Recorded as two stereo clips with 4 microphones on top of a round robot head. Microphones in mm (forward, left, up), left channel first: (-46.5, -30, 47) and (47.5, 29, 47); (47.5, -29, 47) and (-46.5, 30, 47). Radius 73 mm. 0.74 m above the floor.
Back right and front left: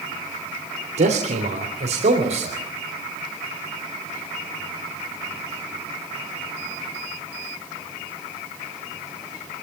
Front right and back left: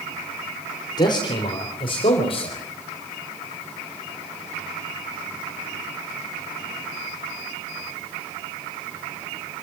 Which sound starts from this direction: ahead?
A man speaking, at 1.0 s.